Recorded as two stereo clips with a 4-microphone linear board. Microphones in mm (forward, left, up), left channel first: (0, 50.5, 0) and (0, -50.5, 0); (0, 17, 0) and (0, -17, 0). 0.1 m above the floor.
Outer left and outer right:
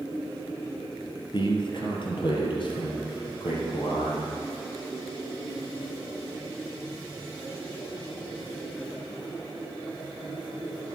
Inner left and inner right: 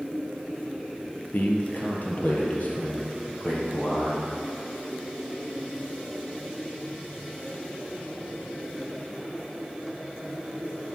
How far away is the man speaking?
About 1.9 m.